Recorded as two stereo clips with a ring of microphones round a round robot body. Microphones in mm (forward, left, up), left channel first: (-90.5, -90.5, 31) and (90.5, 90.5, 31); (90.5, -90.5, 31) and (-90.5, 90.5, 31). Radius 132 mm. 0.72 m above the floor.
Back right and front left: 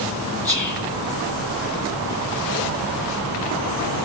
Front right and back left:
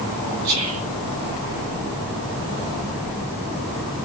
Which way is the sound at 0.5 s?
120° left.